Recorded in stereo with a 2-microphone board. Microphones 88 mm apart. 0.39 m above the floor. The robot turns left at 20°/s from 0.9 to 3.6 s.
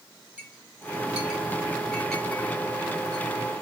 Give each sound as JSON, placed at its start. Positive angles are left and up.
{"t": 0.4, "sound": "a clink", "side_deg": -15, "distance_m": 1.3}